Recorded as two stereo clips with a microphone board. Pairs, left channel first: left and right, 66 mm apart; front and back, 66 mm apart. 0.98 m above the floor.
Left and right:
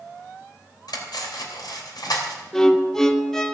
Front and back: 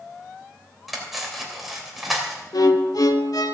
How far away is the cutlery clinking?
About 3 m.